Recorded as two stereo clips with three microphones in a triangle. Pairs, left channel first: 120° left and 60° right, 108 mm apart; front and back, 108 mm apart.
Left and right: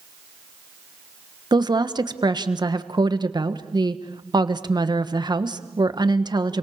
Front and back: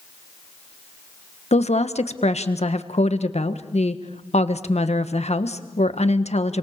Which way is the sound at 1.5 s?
10° right.